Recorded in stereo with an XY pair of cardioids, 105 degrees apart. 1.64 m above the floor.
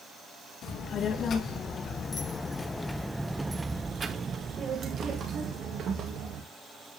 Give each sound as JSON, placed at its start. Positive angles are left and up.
{"t": 0.6, "sound": "a child speaking", "azimuth_deg": 65, "distance_m": 1.8}